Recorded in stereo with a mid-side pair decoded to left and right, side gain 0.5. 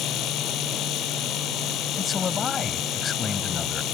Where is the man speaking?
40° left.